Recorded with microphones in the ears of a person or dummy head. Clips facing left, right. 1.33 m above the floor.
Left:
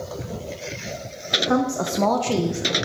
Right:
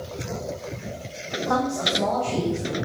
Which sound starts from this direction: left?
A woman speaking, at 1.5 s.